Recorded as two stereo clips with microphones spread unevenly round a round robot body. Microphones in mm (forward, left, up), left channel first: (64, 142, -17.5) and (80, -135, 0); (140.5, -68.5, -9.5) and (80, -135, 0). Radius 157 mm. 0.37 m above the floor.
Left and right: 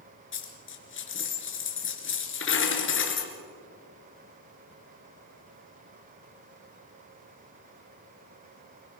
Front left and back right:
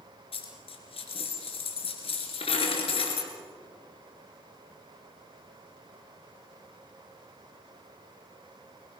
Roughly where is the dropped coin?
Ahead left.